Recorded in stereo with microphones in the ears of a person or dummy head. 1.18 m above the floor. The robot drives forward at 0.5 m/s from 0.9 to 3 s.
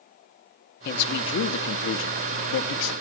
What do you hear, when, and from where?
0.8 s a man speaking: 60° left (ahead or behind), 1.6 m; by 2.9 s 85° left, 1.4 m